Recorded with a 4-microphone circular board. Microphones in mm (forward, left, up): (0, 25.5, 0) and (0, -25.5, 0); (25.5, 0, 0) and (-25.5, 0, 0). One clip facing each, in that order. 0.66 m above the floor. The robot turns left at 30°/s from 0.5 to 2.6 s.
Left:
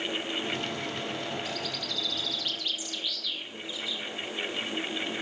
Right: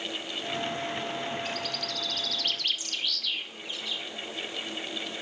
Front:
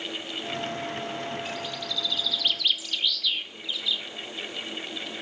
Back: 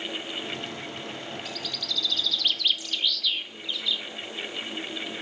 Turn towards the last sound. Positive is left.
turn(degrees=-90)